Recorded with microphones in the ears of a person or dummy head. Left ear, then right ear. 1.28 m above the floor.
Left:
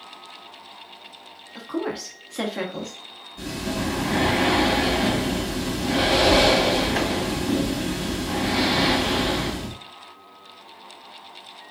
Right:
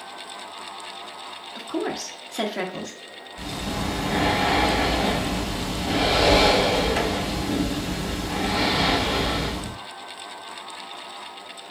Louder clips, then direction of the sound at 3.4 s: Left 1 dB; 45° left (ahead or behind).